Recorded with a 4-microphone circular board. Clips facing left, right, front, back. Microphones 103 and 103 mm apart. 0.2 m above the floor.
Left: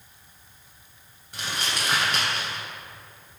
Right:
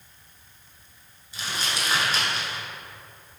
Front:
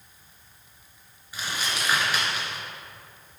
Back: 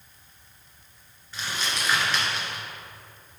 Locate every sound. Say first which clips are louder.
1.3 s crumpling: even, even; 75° left, 1.5 m